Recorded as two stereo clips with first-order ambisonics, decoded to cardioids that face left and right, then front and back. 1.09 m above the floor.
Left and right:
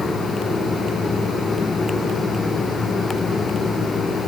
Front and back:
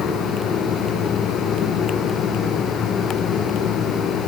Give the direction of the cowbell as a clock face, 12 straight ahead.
I don't hear a cowbell.